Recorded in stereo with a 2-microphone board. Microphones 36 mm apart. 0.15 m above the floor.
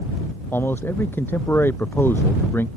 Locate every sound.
0.5 s a man speaking: 75° left (ahead or behind)